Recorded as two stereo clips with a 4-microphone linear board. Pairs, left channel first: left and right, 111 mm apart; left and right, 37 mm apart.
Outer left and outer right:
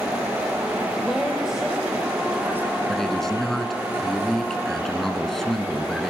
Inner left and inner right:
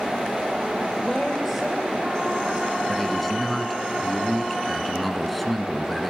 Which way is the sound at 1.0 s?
Centre (ahead or behind).